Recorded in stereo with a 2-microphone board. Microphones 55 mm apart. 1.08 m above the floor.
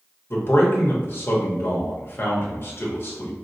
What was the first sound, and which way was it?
A man speaking, 45° left (ahead or behind).